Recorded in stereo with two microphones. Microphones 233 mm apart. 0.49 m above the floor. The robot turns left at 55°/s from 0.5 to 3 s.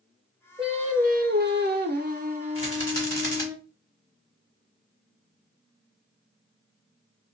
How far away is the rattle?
About 1.7 m.